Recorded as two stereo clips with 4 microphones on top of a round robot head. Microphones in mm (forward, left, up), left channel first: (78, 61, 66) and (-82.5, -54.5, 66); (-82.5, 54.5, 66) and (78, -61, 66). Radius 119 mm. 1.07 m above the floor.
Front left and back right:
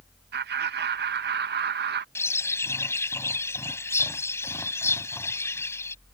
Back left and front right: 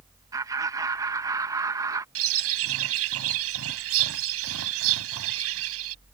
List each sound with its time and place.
0.3 s laughter: 110° right
2.1 s a bird: 45° right